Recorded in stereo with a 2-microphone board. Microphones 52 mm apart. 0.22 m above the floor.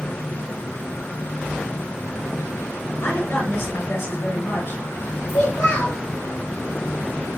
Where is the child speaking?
65° left (ahead or behind), 2 m.